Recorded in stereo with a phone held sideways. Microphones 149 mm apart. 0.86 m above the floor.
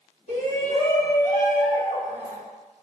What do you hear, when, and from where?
0.3 s a shout: 55° left (ahead or behind), 1.7 m